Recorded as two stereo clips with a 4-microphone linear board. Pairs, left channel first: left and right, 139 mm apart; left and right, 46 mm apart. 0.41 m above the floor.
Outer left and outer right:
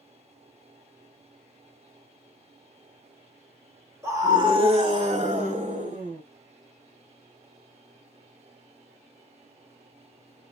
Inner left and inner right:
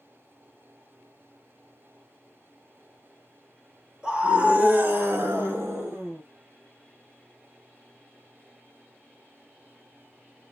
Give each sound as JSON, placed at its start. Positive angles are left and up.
{"t": 4.0, "sound": "a scream", "side_deg": -20, "distance_m": 0.9}